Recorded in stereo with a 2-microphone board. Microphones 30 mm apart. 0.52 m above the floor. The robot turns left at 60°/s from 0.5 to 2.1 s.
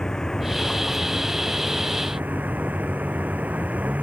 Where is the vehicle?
25° left (ahead or behind); by 4.0 s 55° right (ahead or behind).